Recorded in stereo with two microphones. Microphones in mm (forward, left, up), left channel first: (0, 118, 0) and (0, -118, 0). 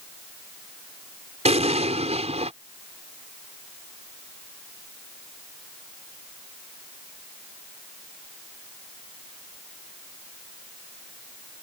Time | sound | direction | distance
1.4 | an explosion | 25° right (ahead or behind) | ?